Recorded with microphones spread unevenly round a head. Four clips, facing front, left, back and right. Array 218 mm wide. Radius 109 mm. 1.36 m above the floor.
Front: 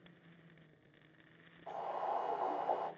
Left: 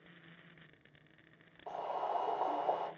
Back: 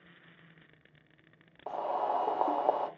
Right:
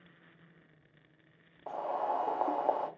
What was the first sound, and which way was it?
Boiling, 155° right.